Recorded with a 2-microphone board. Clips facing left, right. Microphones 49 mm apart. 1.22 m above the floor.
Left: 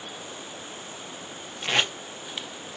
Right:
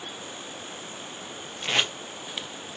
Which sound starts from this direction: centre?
Tape being pulled, at 1.6 s.